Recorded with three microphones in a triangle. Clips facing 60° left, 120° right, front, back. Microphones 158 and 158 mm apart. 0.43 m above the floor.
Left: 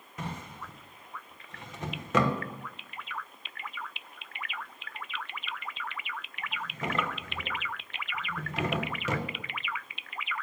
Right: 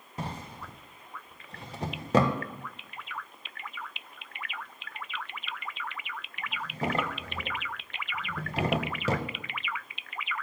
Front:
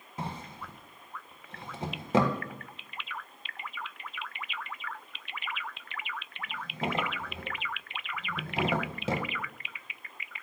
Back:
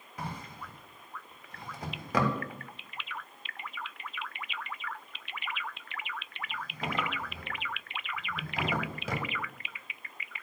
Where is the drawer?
65° right, 0.7 m.